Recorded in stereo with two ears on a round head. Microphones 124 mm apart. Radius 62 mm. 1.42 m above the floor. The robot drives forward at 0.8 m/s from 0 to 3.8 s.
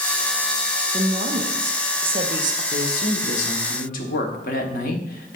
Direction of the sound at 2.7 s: 60° left (ahead or behind).